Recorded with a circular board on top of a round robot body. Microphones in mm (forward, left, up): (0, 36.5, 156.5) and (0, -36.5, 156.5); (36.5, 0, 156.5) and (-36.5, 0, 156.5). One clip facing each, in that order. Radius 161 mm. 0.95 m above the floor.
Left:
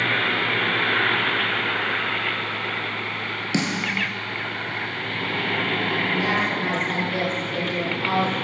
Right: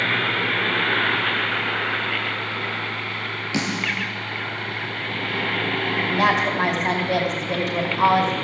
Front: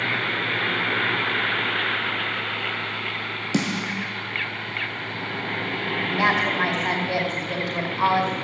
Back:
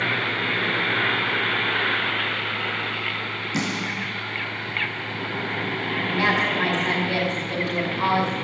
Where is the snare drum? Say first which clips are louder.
Left 1 dB, front 3 dB; 20° left, 3.5 m.